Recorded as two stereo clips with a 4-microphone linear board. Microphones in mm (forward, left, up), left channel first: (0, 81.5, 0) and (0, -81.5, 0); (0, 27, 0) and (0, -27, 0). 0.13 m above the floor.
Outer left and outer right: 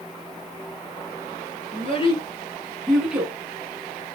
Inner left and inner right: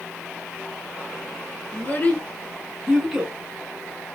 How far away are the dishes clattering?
No dishes clattering in this recording.